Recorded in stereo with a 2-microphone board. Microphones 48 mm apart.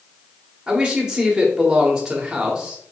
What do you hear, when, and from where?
0.7 s a man speaking: 15° right (ahead or behind), 1.1 m